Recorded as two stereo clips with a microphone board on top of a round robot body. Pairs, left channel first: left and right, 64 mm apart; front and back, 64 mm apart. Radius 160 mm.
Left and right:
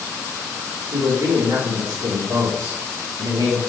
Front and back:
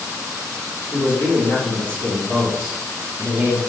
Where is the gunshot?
I don't hear a gunshot.